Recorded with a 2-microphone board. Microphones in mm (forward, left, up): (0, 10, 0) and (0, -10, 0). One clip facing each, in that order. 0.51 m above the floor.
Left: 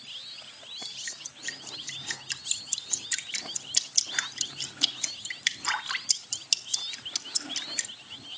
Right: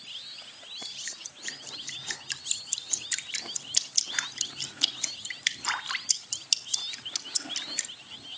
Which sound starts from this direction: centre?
Dripping, at 0.8 s.